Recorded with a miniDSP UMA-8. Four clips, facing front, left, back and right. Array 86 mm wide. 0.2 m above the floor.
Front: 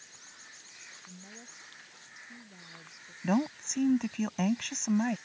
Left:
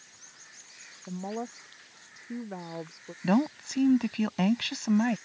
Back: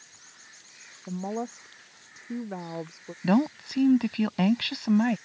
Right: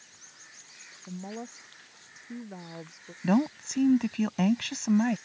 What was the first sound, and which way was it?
A woman speaking, 160° left.